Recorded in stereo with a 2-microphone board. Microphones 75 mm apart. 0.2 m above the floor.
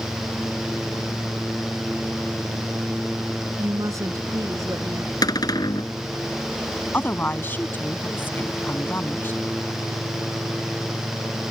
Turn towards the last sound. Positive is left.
turn(degrees=30)  # may be behind; listen again after turning